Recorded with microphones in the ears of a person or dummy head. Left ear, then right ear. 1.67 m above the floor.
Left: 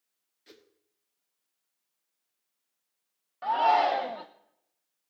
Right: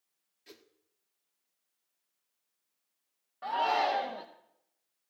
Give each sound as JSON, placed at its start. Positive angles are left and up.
{"t": 0.5, "sound": "a whoosh", "side_deg": 5, "distance_m": 1.0}
{"t": 3.4, "sound": "a shout", "side_deg": 35, "distance_m": 0.7}